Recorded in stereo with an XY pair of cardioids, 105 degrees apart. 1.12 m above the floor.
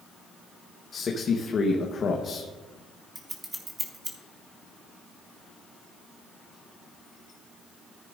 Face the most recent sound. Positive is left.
turn(degrees=-20)